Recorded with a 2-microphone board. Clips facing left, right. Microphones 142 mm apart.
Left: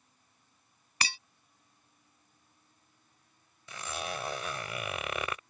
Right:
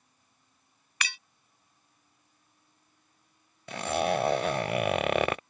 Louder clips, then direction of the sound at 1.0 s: Left 1 dB; 35° left (ahead or behind).